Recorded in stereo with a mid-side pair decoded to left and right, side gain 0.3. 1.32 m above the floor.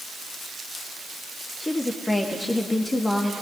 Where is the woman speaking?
25° left, 2.5 m.